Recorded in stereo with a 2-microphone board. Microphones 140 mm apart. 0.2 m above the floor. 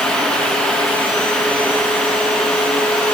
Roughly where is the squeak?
I don't hear a squeak.